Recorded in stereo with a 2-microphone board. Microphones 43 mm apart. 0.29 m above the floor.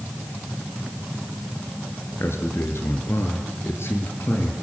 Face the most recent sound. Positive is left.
turn(degrees=80)